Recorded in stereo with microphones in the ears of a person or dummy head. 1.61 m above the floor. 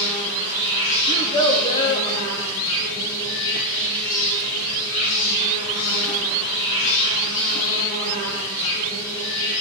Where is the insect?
75° left (ahead or behind), 2 m.